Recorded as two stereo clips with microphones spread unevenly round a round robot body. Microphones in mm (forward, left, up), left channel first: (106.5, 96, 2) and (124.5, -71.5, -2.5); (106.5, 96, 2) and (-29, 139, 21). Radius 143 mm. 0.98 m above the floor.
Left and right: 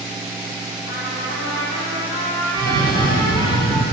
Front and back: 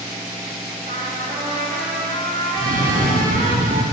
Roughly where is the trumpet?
Behind left.